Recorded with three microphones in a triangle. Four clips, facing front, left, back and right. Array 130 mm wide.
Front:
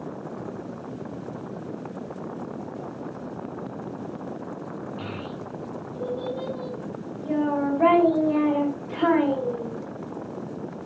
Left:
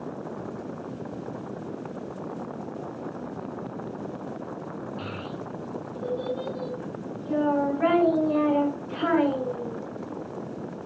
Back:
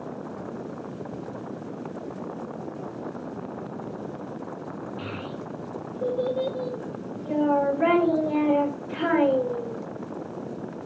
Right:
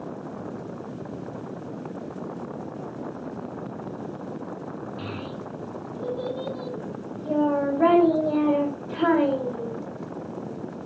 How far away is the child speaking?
About 4 m.